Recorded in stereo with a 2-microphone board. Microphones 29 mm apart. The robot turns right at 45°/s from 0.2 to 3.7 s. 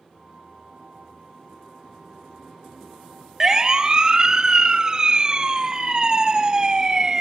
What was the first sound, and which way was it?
A siren, 15° right (ahead or behind).